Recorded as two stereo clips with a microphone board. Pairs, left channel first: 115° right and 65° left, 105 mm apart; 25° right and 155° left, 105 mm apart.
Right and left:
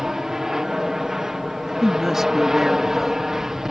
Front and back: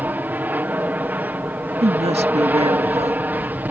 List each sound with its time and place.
0.0 s an aircraft: 140° left
1.8 s a woman speaking: 155° left